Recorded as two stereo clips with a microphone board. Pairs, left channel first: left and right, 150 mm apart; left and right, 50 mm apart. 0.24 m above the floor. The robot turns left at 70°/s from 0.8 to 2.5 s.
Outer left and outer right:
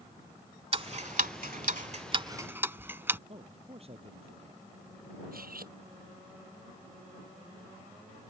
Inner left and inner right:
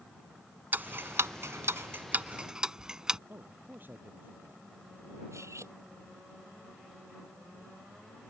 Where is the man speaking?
40° right (ahead or behind).